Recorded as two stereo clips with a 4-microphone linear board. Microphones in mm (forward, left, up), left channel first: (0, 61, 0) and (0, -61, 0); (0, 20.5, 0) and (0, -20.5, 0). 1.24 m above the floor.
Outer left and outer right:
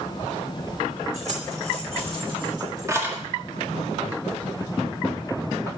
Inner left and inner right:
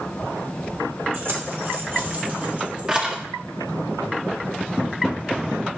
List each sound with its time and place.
1.1 s keys jangling: 70° right (ahead or behind), 2.5 m; by 3.2 s 15° right (ahead or behind), 1.8 m